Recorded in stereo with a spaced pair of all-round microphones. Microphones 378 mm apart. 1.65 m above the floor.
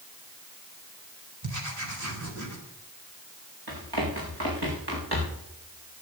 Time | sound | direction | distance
1.4 | writing | 50° right (ahead or behind) | 4 m
3.7 | running footsteps | 75° right (ahead or behind) | 7.5 m